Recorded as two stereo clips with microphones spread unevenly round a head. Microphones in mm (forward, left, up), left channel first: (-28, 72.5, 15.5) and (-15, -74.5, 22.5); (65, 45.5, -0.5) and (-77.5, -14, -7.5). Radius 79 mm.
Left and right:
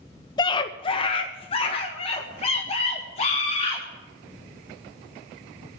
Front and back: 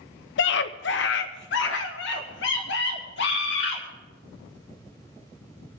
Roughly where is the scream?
Ahead left.